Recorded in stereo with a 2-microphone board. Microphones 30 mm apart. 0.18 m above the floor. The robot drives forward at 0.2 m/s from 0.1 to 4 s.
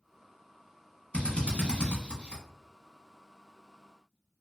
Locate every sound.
1.1 s a drill: 40° left (ahead or behind), 0.9 m; by 2.4 s 35° left (ahead or behind), 1.0 m